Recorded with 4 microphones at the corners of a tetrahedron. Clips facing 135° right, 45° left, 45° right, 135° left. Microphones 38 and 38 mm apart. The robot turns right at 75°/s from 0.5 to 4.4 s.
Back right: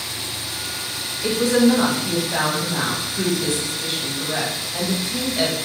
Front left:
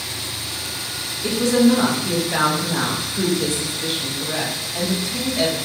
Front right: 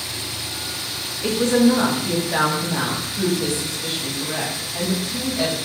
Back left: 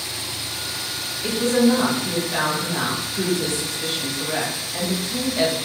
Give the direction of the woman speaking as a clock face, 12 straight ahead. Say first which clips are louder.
Even, front right 2 dB; 3 o'clock.